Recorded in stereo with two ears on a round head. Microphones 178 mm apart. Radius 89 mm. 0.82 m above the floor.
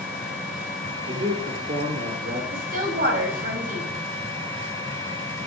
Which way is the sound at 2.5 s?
50° right (ahead or behind).